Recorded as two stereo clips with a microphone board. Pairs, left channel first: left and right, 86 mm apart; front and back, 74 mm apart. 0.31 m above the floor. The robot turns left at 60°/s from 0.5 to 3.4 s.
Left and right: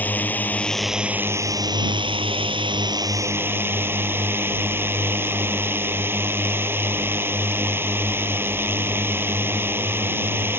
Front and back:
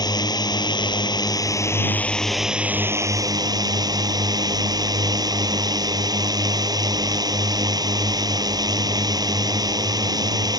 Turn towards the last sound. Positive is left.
turn(degrees=-155)